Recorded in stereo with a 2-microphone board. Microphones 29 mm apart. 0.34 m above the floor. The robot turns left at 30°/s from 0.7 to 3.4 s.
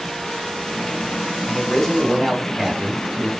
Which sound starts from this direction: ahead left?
A man speaking, at 1.5 s.